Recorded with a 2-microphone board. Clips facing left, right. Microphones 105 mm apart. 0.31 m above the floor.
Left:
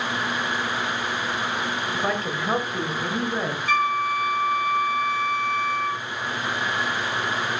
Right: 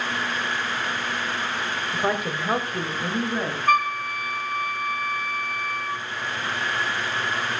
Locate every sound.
1.9 s a woman speaking: 15° right (ahead or behind), 0.9 m; by 3.6 s 5° left (ahead or behind), 1.5 m
3.7 s a flute: 50° right (ahead or behind), 1.1 m